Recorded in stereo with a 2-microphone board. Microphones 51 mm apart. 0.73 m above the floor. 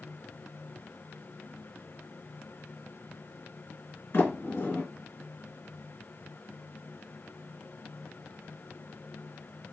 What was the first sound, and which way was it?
A sliding door, 60° left (ahead or behind).